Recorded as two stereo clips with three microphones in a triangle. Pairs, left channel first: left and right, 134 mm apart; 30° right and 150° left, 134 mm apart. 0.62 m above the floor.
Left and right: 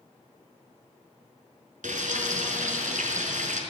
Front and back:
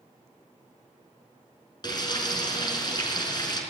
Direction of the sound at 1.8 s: 85° right.